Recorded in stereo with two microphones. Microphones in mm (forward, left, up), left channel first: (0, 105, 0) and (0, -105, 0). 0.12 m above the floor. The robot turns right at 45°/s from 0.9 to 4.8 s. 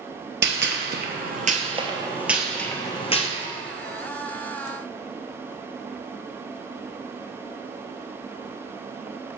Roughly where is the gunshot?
Right.